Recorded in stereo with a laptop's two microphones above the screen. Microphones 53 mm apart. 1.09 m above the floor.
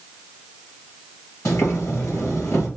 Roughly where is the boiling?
Left.